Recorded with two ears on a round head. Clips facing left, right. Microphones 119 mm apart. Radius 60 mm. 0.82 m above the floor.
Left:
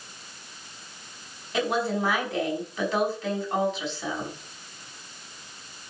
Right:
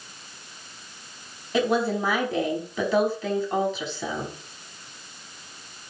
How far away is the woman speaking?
About 5.5 m.